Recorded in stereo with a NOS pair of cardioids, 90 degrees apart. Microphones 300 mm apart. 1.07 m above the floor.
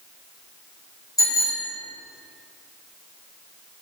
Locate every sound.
1.2 s a bicycle bell: 10° left, 4.5 m